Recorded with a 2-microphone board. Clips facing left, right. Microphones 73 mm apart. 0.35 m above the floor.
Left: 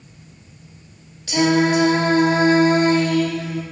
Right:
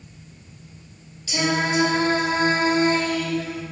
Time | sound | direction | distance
1.3 | singing | 60° left (ahead or behind) | 0.6 m